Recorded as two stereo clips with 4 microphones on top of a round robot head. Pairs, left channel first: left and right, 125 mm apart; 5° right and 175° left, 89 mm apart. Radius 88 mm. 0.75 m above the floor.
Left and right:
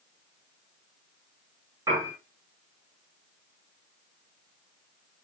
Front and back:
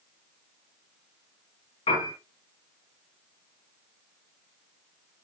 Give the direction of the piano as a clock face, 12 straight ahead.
1 o'clock.